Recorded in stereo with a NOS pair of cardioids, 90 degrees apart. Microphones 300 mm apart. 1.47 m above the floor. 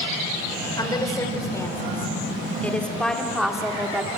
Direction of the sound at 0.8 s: 10° left.